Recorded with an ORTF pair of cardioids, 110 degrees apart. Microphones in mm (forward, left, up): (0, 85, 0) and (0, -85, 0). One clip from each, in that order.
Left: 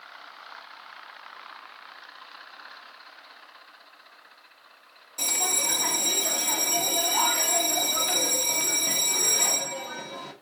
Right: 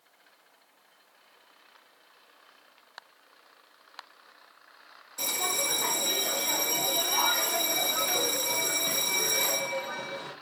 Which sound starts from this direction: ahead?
A bell, at 5.2 s.